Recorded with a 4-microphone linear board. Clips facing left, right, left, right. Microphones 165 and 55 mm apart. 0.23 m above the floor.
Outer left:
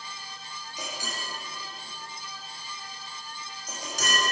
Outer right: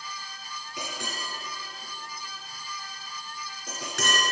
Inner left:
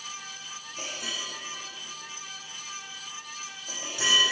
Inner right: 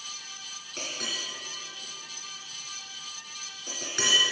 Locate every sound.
0.8 s a clink: 70° right (ahead or behind), 2.5 m